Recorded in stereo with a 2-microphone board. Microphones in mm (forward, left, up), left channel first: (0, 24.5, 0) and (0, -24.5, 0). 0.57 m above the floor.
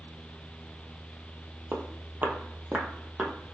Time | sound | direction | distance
1.7 | footsteps | 45° right (ahead or behind) | 0.7 m